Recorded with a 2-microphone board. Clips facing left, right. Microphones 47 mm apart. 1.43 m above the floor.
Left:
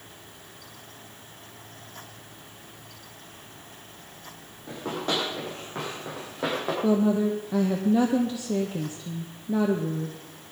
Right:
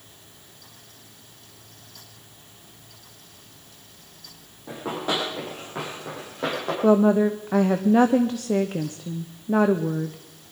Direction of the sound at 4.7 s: 10° right (ahead or behind).